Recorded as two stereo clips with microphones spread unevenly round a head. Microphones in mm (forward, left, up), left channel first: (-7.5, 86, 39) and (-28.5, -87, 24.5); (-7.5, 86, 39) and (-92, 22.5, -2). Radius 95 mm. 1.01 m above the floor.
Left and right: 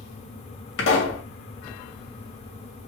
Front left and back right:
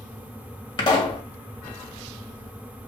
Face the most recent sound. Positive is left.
turn(degrees=90)